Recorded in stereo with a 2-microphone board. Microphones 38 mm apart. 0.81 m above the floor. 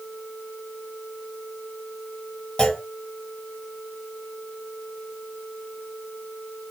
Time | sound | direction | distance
2.6 | a clunk | 20° left (ahead or behind) | 1.0 m